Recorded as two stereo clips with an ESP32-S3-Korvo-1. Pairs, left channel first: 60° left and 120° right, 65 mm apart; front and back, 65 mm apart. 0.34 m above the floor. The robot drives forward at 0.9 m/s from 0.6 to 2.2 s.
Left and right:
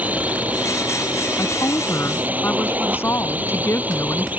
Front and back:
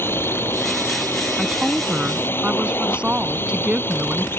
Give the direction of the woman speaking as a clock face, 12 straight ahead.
9 o'clock.